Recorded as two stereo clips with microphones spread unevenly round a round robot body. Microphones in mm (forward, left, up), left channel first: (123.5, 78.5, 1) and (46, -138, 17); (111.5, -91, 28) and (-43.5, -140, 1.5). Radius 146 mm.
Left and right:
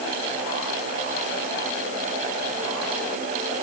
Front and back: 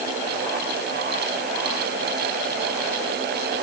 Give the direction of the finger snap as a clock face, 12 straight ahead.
No finger snap in this recording.